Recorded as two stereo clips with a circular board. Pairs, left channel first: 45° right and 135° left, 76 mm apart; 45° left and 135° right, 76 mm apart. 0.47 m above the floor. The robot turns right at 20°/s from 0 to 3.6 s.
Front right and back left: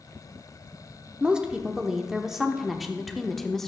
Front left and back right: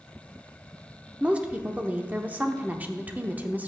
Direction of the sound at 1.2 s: 175° right.